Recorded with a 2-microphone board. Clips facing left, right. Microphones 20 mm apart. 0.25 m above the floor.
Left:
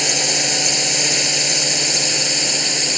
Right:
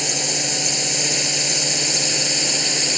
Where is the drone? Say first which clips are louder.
Left 4 dB; 25° left (ahead or behind); by 3.0 s 5° left (ahead or behind).